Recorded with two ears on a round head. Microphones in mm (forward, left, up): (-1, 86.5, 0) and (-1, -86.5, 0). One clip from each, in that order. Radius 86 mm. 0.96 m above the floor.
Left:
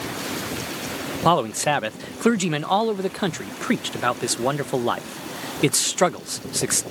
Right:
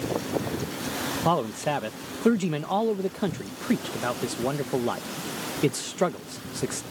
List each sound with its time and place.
1.2 s a man speaking: 45° left (ahead or behind)